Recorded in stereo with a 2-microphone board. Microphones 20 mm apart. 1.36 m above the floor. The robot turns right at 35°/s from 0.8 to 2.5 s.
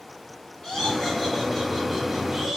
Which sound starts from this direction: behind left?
Laughter, at 0.6 s.